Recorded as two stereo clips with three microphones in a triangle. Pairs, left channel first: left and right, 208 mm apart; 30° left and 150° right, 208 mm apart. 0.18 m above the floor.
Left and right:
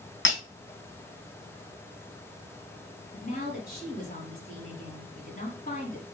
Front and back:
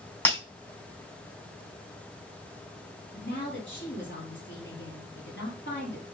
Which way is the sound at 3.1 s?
50° left.